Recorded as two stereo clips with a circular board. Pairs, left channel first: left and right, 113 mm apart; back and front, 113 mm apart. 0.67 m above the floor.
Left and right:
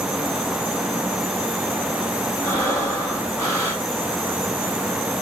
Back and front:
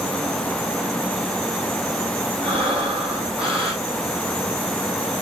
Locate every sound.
2.4 s breathing: 25° left, 3.5 m